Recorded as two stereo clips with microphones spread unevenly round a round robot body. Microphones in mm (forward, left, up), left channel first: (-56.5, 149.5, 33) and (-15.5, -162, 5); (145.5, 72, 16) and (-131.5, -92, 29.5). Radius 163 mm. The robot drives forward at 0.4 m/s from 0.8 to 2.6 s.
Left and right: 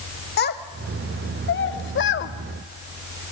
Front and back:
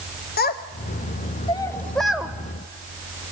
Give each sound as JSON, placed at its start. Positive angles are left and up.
{"t": 0.4, "sound": "a child speaking", "azimuth_deg": 55, "distance_m": 0.9}